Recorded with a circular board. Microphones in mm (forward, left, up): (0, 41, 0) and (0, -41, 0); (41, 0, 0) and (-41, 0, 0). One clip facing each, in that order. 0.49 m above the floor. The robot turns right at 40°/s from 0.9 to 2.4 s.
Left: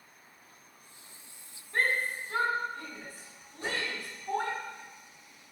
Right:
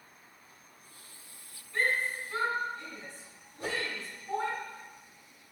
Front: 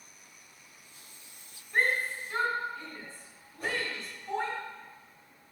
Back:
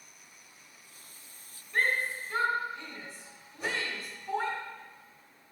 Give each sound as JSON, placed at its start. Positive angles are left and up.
{"t": 1.7, "sound": "a shout", "azimuth_deg": 70, "distance_m": 2.0}
{"t": 3.6, "sound": "a whoosh", "azimuth_deg": -95, "distance_m": 1.4}